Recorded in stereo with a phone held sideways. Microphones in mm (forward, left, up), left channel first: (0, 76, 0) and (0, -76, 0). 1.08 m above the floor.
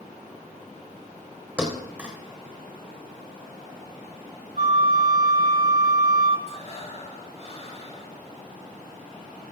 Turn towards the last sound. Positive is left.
turn(degrees=45)  # may be behind; listen again after turning